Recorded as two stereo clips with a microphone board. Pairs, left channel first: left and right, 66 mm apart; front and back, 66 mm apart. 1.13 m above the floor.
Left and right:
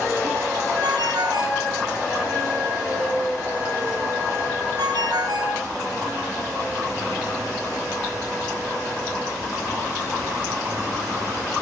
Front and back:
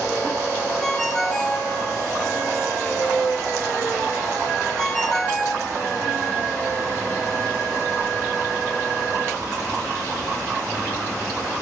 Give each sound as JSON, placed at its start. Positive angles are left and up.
{"t": 0.8, "sound": "a ringtone", "azimuth_deg": -85, "distance_m": 6.5}